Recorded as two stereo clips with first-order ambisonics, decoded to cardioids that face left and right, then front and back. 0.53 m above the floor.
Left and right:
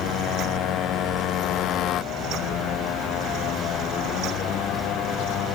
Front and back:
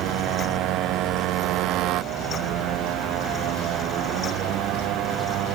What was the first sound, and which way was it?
A motorcycle, 140° left.